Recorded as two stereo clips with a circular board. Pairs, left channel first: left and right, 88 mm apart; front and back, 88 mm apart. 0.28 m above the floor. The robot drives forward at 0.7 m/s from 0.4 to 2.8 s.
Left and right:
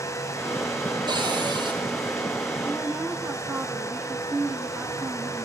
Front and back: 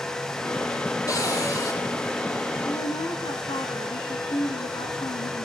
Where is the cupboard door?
50° right, 9.5 m; by 1.8 s 55° right, 9.5 m.